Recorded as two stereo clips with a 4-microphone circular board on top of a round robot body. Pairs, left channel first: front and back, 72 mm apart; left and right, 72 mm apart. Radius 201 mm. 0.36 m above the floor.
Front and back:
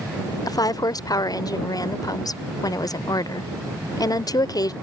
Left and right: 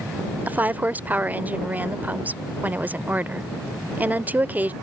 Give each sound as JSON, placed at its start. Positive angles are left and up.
{"t": 0.5, "sound": "a woman speaking", "azimuth_deg": -25}